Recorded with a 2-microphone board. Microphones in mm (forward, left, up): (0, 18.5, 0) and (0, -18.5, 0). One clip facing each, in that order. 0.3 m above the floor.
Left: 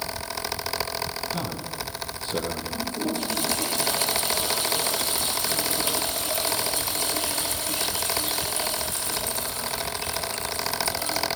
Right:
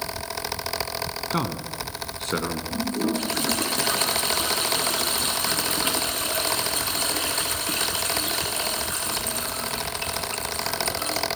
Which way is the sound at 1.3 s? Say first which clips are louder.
Right 3 dB; 65° right (ahead or behind).